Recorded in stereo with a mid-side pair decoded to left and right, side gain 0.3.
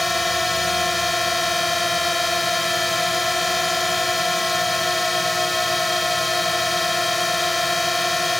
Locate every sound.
0.0 s a drone: 15° left